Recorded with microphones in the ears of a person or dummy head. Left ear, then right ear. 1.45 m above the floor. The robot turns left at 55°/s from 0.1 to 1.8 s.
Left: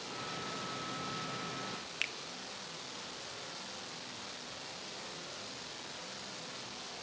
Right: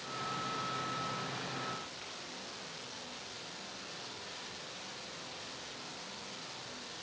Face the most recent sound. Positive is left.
turn(degrees=55)  # may be behind; listen again after turning